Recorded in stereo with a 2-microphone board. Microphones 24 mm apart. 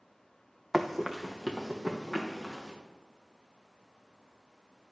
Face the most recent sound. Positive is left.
turn(degrees=-10)  # may be behind; listen again after turning